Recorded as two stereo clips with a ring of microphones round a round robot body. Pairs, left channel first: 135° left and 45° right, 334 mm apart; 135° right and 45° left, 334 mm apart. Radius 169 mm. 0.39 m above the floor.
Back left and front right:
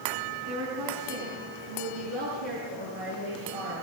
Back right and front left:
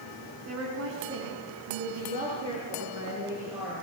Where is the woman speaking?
Straight ahead, 5.5 m; by 3.8 s 40° right, 8.5 m.